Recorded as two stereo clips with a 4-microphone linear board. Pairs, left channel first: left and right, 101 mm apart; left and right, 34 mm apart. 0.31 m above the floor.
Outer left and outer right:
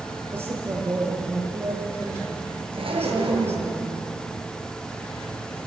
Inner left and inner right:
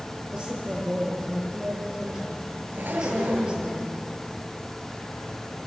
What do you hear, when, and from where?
0.3 s a woman speaking: 20° right (ahead or behind), 7 m
2.7 s a zipper: 65° right (ahead or behind), 4.5 m